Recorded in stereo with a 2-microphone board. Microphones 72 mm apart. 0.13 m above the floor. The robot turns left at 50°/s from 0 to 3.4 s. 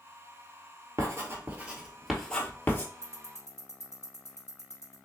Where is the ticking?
35° left (ahead or behind), 1.9 m.